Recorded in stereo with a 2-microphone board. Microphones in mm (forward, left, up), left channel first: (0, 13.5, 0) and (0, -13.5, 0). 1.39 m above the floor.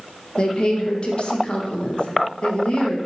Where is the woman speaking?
40° left (ahead or behind), 1.6 m.